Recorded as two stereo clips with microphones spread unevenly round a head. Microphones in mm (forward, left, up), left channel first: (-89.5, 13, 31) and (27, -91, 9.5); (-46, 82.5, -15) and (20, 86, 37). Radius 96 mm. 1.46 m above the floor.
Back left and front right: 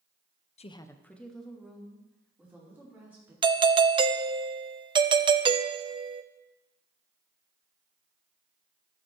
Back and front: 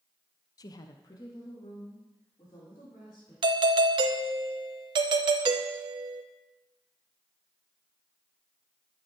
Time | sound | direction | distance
0.6 | a woman speaking | 170° right | 0.6 m
3.4 | a doorbell | 50° right | 0.5 m